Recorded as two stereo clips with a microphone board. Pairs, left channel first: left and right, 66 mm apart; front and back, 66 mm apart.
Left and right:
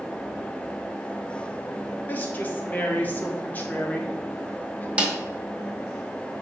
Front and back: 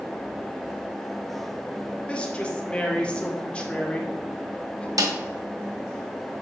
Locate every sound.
2.1 s a woman speaking: 60° left, 1.3 m
5.0 s a snare drum: 160° right, 1.2 m